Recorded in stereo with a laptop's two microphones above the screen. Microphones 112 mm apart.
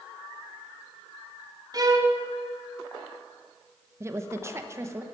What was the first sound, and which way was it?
A violin, 35° right (ahead or behind).